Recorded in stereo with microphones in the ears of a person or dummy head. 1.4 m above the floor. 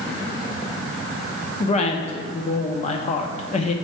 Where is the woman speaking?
35° left (ahead or behind), 0.7 m.